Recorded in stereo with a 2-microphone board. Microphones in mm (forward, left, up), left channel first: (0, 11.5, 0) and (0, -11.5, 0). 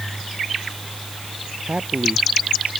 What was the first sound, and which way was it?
A man speaking, 80° right.